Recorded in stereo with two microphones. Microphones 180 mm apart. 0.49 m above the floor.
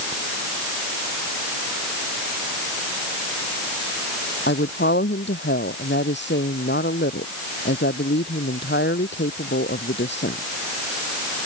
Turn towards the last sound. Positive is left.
turn(degrees=85)